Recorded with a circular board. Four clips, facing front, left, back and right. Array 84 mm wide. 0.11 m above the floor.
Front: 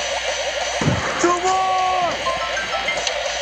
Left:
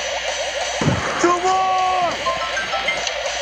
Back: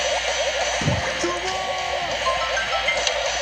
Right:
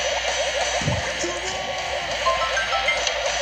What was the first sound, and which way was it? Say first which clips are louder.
A shout: left 8 dB, front 5 dB; 60° left.